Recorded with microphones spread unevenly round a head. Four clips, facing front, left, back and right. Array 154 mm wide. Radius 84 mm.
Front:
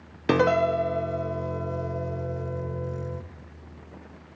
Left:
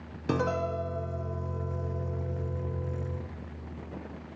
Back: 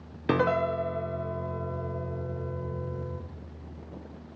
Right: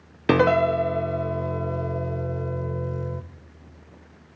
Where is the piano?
60° right, 0.5 m.